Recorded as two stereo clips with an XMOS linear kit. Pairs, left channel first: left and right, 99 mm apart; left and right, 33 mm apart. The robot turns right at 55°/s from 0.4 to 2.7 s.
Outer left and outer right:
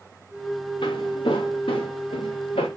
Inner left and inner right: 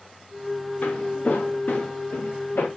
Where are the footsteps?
55° left (ahead or behind), 1.1 m; by 2.7 s 85° left, 1.3 m.